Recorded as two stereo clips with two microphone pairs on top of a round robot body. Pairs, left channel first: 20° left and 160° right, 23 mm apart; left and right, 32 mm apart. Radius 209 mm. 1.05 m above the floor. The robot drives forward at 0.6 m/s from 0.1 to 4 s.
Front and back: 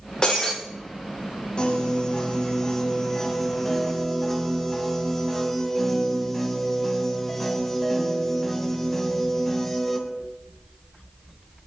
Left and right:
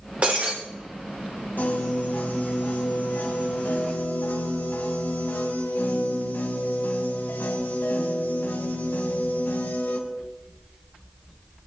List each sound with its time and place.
0.2 s breaking glass: 40° right, 7.5 m
1.6 s a piano: 70° left, 2.5 m; by 10.0 s 105° left, 2.5 m